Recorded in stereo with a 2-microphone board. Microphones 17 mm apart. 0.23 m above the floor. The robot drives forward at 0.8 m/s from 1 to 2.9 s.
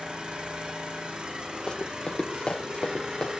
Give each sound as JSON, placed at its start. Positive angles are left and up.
{"t": 0.0, "sound": "an engine running", "side_deg": -65, "distance_m": 9.0}
{"t": 1.7, "sound": "running footsteps", "side_deg": 45, "distance_m": 6.0}